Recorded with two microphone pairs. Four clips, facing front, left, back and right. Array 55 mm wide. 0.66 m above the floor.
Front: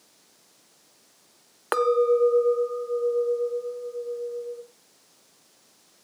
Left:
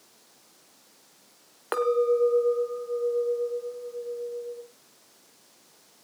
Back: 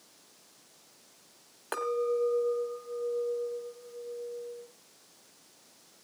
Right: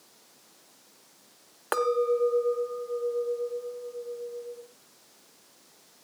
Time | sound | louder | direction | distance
1.7 | a clink | left 2 dB, front 9 dB | 5° right | 0.9 m